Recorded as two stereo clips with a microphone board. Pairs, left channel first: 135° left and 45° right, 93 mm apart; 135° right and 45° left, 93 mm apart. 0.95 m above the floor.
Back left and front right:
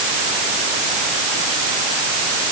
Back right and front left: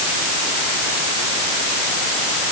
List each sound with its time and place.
Only background noise.